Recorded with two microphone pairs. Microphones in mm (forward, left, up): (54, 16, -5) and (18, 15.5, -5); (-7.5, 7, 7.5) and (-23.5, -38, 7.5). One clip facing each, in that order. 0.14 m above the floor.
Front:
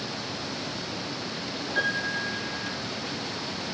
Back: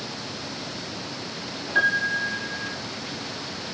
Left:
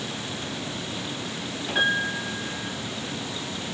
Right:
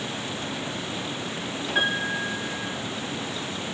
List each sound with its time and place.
1.8 s a piano: 170° left, 1.3 m